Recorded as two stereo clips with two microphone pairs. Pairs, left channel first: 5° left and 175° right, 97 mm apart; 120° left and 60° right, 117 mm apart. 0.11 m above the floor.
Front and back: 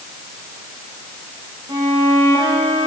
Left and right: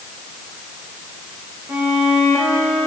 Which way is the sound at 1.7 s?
135° right.